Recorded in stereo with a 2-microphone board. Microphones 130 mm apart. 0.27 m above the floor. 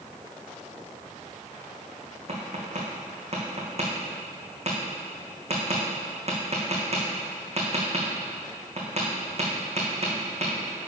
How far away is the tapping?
About 2.5 m.